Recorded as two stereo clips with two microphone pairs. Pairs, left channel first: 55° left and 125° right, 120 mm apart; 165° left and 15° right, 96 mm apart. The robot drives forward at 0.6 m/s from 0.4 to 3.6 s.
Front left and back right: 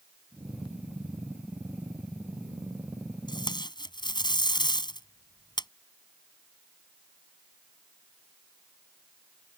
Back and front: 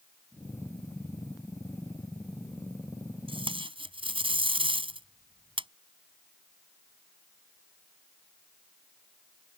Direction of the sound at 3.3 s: 5° left.